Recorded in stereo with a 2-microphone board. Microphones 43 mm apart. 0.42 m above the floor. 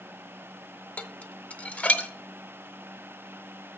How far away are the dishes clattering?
About 0.6 m.